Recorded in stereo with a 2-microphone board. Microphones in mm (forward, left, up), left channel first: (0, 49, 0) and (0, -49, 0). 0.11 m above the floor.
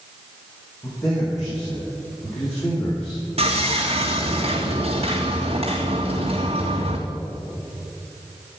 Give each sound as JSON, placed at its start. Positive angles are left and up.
{"t": 0.8, "sound": "a man speaking", "side_deg": 35, "distance_m": 5.5}
{"t": 3.4, "sound": "sawing", "side_deg": -80, "distance_m": 2.5}